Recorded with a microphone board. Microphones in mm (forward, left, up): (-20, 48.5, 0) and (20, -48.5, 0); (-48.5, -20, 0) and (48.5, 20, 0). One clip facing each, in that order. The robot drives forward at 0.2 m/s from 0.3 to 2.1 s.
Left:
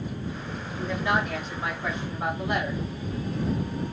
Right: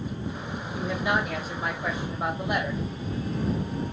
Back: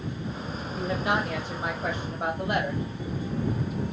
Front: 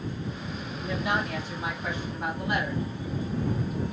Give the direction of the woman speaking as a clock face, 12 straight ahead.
5 o'clock.